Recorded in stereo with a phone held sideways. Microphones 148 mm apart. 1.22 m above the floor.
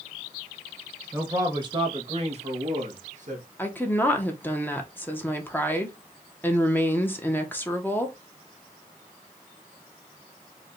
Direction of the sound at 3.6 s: 15° left (ahead or behind).